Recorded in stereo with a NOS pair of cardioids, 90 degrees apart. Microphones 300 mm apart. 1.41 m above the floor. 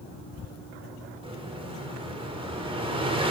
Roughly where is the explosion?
Ahead.